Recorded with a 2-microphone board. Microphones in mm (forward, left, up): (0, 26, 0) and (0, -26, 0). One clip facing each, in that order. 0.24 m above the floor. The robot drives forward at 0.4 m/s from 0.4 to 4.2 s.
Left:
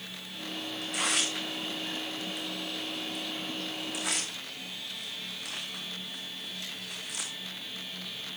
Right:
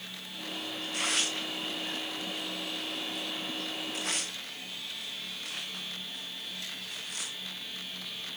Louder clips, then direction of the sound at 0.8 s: Left 1 dB; 80° left.